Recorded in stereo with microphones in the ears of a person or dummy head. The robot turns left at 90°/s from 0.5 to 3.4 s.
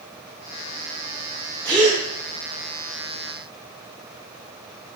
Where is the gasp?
5° left (ahead or behind), 0.5 m; by 2.0 s 5° right (ahead or behind), 0.5 m.